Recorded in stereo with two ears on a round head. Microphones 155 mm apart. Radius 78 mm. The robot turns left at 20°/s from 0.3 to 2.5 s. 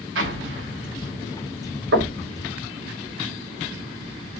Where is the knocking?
85° right, 5 m; by 2.2 s 80° right, 5 m.